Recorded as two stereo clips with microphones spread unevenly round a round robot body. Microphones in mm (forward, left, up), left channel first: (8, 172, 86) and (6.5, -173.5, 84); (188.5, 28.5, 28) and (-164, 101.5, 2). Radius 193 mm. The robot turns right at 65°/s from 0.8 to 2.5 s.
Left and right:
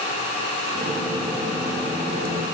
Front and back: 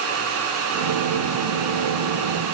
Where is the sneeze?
No sneeze in this recording.